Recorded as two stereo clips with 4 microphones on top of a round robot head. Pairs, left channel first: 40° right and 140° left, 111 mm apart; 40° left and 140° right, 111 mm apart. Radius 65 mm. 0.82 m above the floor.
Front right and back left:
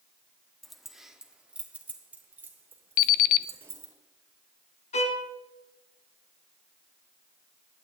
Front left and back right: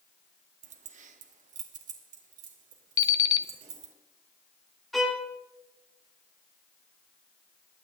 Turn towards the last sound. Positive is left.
turn(degrees=-50)